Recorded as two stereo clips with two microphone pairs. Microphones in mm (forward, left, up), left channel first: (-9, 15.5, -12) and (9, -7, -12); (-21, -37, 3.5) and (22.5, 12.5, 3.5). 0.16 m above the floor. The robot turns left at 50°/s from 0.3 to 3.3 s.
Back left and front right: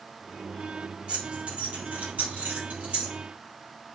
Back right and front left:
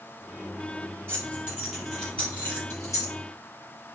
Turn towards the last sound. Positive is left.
turn(degrees=-115)